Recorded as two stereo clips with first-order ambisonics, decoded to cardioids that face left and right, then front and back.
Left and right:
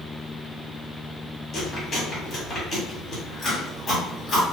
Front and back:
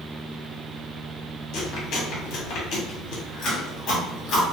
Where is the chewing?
20° left, 1.3 m.